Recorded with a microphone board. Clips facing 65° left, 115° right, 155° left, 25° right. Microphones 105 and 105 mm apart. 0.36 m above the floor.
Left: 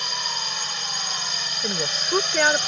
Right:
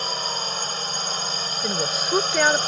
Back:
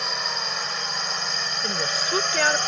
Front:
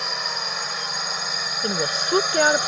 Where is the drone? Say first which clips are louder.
Right 3 dB, even; 110° right; by 2.7 s 100° right.